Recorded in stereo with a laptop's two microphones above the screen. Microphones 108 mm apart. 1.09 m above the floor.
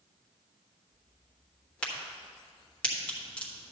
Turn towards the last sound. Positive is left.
turn(degrees=10)  # may be behind; listen again after turning